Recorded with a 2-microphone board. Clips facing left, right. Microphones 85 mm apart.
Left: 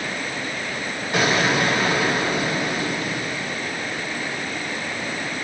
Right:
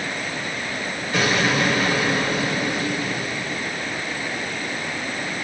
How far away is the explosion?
About 1.4 m.